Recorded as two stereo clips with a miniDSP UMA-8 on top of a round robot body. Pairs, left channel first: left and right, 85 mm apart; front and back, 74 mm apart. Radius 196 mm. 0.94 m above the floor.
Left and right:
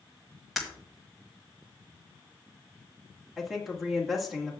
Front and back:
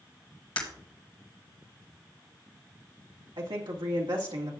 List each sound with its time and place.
0.6 s breaking glass: straight ahead, 1.6 m
3.4 s a woman speaking: straight behind, 2 m